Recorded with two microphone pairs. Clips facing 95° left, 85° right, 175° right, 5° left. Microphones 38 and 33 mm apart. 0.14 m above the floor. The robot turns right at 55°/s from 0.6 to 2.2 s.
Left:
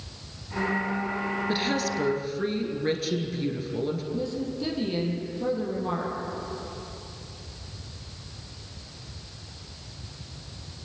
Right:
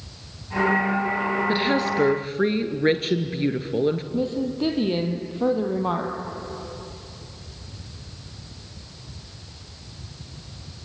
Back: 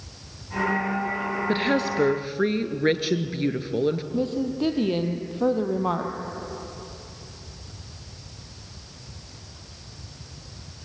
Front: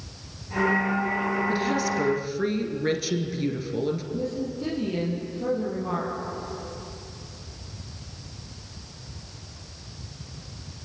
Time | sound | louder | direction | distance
1.5 | a woman speaking | right 4 dB, back 2 dB | 160° right | 2 m
4.1 | a woman speaking | right 5 dB, back 4 dB | 135° right | 3.5 m